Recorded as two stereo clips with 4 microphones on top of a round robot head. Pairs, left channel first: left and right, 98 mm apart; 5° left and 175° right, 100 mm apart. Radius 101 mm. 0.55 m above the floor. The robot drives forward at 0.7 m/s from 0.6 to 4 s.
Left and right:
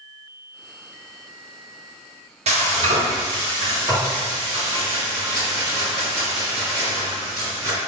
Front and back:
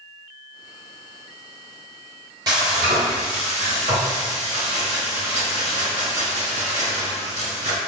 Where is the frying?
115° right, 0.9 m; by 7.8 s 150° right, 1.7 m.